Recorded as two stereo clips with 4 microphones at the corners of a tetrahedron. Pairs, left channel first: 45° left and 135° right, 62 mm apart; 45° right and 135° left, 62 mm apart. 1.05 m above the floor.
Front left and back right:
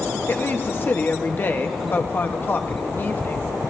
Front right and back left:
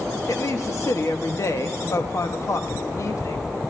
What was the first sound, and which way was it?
A woman speaking, 10° right.